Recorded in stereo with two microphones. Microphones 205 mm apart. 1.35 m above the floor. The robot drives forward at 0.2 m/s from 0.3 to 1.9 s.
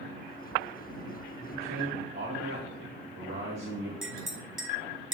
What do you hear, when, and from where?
1.4 s a man speaking: 70° right (ahead or behind), 2.0 m; by 3.9 s 65° right (ahead or behind), 2 m
4.0 s a clink: 80° right, 2 m